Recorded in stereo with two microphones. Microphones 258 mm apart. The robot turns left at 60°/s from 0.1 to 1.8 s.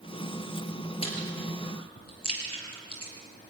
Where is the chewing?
20° left (ahead or behind), 5.5 m; by 3.1 s 65° left (ahead or behind), 5.5 m.